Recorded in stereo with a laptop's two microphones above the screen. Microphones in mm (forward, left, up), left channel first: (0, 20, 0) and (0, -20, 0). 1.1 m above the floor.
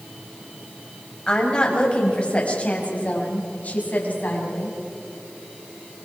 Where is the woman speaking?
20° left (ahead or behind), 5.5 m; by 4.7 s 50° left (ahead or behind), 8 m.